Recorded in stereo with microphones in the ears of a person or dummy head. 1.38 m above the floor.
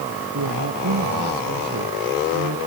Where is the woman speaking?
85° right.